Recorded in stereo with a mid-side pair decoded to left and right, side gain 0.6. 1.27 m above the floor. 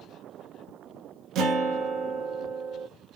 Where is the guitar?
65° right, 0.7 m.